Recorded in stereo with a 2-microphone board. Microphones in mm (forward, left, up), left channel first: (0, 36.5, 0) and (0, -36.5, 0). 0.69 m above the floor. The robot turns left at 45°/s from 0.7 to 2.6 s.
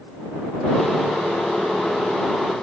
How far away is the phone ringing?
No phone ringing in this recording.